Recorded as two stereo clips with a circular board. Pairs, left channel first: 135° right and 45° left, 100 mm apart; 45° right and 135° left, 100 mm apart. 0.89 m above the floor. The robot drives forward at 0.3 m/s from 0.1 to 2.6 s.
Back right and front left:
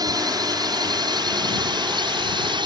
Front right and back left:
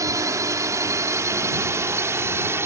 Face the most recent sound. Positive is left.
turn(degrees=75)